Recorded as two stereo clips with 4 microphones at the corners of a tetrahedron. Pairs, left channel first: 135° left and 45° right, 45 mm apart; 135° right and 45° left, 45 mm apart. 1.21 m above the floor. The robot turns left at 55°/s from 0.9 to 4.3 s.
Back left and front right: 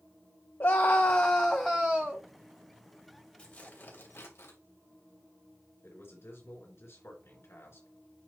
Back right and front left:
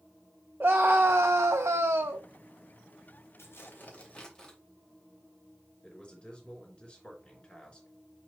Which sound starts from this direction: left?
A scream, at 0.6 s.